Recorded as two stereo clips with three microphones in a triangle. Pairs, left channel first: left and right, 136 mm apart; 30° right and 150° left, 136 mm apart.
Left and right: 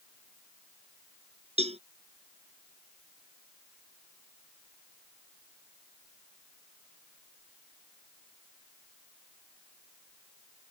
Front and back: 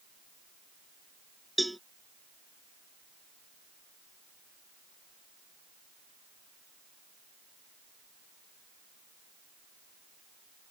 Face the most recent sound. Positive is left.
turn(degrees=-120)